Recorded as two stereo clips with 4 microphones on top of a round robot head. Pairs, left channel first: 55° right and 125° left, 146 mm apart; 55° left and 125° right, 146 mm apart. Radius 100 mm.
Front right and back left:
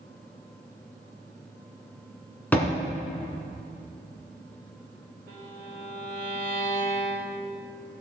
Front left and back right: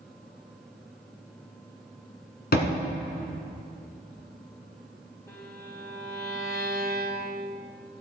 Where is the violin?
120° left, 3.5 m.